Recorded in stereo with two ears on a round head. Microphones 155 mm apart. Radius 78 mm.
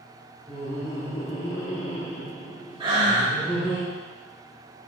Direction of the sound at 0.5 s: 5° left (ahead or behind).